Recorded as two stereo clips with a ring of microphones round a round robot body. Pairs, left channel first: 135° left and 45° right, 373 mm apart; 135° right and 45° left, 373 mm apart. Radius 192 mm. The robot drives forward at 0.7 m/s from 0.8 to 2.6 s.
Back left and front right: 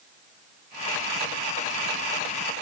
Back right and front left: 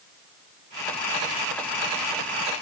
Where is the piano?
I don't hear a piano.